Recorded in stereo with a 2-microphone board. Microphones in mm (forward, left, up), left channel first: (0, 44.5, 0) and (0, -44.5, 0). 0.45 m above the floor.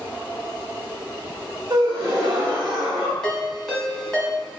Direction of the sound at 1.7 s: 55° right (ahead or behind).